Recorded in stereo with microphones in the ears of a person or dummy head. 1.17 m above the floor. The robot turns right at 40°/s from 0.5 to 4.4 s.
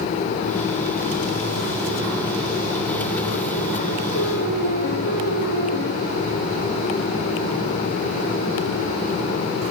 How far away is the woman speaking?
I don't hear a woman speaking.